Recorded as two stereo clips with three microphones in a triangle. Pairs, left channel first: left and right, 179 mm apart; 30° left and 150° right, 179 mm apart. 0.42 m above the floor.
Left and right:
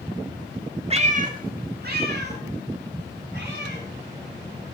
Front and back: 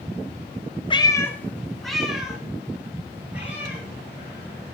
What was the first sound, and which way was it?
A cat meowing, 35° right.